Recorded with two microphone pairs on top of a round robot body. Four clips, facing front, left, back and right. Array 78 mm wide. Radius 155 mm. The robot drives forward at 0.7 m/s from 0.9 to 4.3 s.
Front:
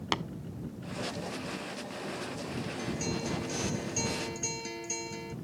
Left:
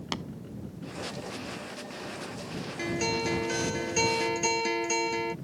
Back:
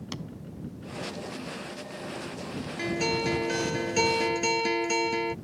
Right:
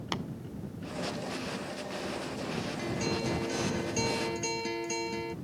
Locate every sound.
0.1 s tapping: 10° right
2.8 s a guitar: 145° left